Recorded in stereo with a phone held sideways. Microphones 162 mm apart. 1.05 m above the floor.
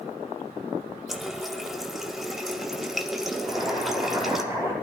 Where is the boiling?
20° right (ahead or behind), 9 m.